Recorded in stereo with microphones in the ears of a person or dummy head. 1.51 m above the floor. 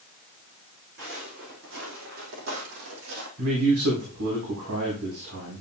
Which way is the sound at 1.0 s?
60° right (ahead or behind).